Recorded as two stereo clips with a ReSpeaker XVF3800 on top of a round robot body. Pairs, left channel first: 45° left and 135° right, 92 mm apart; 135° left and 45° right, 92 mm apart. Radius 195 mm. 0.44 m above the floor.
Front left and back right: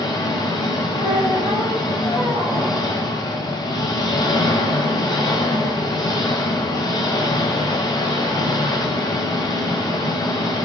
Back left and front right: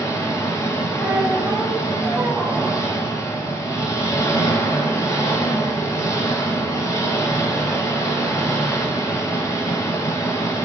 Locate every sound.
0.0 s an engine running: 85° left, 0.8 m
1.0 s a squeak: 15° left, 1.2 m